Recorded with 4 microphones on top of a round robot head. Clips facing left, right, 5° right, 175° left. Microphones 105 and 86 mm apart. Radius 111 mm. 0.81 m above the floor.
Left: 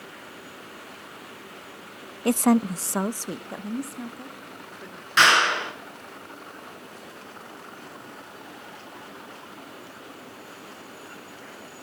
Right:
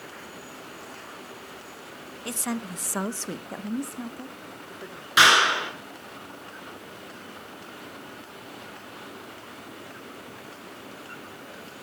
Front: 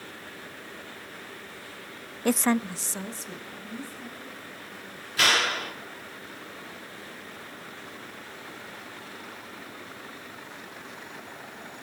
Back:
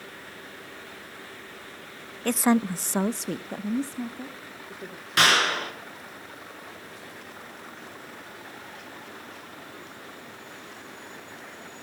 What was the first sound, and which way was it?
A woman speaking, 70° left.